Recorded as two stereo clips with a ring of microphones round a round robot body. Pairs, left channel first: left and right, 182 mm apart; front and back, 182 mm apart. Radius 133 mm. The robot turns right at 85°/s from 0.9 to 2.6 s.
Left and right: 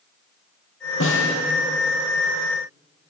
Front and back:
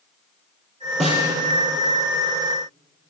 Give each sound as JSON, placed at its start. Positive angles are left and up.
{"t": 1.0, "sound": "a snare drum", "azimuth_deg": 90, "distance_m": 4.5}